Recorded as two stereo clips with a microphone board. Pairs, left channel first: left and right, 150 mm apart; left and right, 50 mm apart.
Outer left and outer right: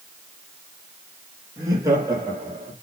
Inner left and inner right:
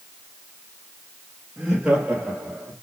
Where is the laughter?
20° right (ahead or behind), 5.5 m; by 2.7 s 30° right (ahead or behind), 6 m.